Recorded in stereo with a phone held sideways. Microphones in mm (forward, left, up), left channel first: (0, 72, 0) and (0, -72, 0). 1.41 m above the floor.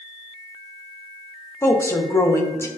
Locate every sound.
1.6 s a woman speaking: 20° left (ahead or behind), 0.5 m